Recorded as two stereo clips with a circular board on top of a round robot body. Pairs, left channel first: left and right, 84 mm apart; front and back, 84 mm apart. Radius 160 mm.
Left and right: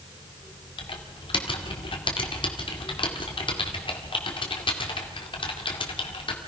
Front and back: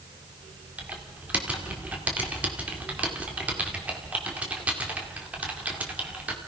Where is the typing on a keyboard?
105° left, 2.5 m.